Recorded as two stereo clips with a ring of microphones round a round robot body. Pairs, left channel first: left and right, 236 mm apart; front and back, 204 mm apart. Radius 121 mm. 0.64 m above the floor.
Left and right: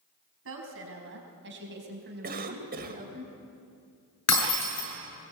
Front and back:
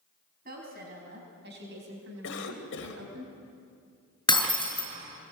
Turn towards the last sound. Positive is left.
turn(degrees=70)